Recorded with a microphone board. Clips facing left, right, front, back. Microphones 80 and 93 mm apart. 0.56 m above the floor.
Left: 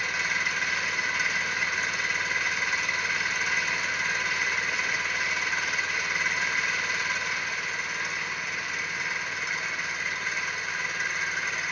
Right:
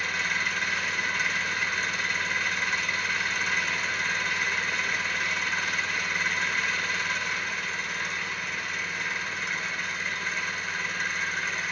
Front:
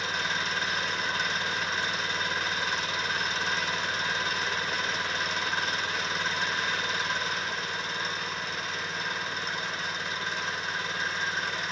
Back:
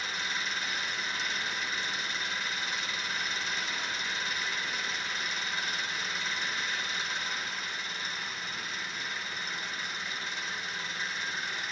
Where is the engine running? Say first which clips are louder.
Even, front 5 dB; 5° left, 1.5 m.